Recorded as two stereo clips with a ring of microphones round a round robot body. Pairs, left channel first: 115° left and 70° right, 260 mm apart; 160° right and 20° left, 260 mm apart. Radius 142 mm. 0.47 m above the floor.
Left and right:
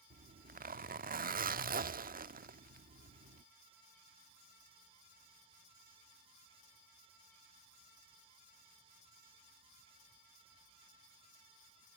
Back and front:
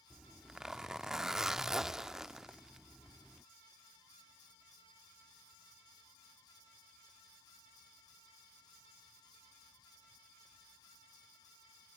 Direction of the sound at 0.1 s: 65° right.